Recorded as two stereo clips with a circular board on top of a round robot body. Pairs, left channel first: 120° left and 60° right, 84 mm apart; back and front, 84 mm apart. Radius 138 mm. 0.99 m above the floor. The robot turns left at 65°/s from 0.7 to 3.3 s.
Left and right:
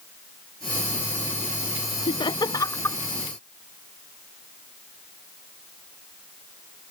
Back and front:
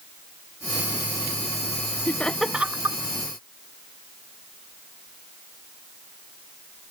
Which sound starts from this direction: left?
Laughter, at 2.1 s.